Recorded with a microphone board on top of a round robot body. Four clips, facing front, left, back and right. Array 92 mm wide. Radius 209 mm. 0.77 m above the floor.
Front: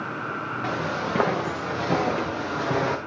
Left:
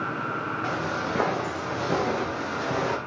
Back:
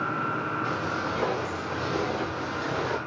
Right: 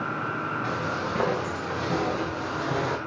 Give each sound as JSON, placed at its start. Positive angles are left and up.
{"t": 0.6, "sound": "footsteps", "azimuth_deg": 15, "distance_m": 4.5}